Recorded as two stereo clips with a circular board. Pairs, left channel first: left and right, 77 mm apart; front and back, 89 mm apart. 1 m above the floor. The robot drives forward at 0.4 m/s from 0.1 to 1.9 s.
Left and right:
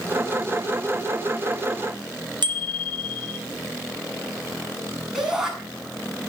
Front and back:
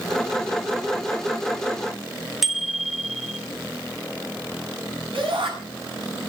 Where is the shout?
170° right, 8 m.